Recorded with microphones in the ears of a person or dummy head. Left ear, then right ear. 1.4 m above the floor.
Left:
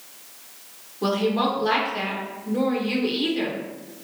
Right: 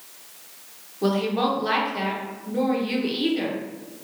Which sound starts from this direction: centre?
A woman speaking, at 1.0 s.